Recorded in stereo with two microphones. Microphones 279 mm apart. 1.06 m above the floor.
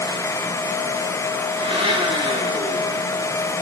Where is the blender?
20° right (ahead or behind), 2.5 m.